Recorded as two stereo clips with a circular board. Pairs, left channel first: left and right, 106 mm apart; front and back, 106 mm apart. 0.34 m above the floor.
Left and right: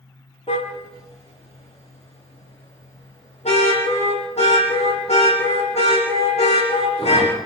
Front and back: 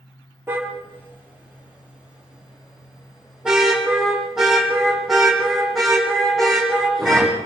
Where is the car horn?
110° left, 4.5 m; by 7.5 s 90° left, 11.5 m.